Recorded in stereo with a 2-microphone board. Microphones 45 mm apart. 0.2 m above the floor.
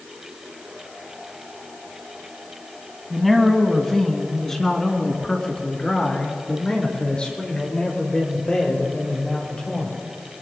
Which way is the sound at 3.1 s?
Centre (ahead or behind).